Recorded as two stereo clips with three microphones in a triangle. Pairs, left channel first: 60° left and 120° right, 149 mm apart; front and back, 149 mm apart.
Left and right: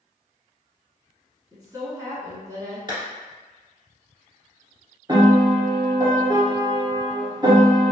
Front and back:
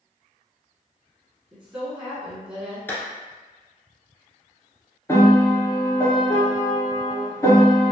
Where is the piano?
65° right, 1.1 m.